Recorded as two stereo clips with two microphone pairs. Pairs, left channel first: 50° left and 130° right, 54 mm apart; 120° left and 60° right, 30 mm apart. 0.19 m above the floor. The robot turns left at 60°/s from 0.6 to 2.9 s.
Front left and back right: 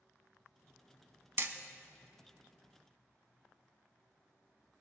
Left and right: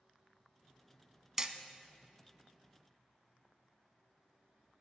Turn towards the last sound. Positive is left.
turn(degrees=145)